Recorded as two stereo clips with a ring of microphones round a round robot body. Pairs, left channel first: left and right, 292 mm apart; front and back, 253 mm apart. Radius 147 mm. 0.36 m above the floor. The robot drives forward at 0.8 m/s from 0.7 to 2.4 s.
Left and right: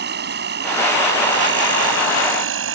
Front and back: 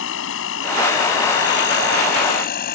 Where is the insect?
40° right; by 2.8 s 55° right.